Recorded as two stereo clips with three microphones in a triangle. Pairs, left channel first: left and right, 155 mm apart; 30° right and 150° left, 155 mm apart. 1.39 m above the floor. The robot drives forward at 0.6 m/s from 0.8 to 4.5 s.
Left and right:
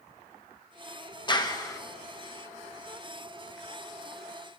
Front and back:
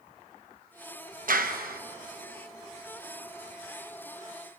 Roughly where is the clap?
Behind left.